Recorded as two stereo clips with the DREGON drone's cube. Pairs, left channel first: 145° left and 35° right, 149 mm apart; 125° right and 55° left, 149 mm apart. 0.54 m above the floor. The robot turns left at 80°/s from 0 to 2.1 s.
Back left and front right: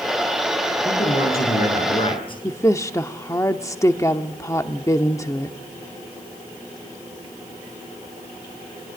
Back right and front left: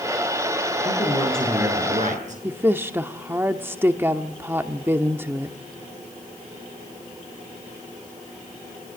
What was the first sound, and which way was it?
A man speaking, 170° right.